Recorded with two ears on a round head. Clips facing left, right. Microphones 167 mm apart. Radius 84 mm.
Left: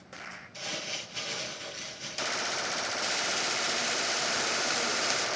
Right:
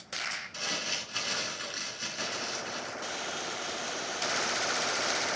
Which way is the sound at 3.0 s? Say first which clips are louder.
Left 3 dB; 25° left (ahead or behind).